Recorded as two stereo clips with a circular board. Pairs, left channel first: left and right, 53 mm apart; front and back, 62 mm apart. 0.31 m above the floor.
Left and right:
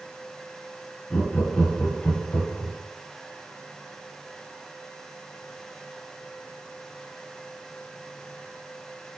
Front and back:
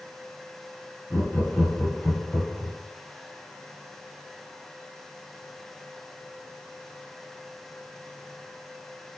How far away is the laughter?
About 1.1 m.